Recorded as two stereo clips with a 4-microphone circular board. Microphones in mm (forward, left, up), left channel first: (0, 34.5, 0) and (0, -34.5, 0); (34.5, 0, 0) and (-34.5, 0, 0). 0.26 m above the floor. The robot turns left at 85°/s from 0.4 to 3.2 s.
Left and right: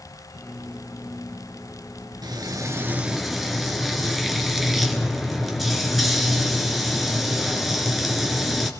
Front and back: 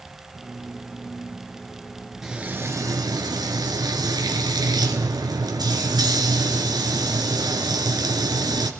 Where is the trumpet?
I don't hear a trumpet.